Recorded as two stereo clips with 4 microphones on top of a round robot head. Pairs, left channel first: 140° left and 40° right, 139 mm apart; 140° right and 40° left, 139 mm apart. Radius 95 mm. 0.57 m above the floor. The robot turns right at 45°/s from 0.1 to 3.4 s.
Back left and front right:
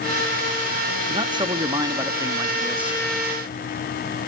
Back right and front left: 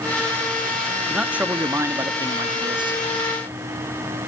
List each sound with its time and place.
1.1 s a man speaking: 45° right, 0.8 m; by 3.0 s 40° left, 0.8 m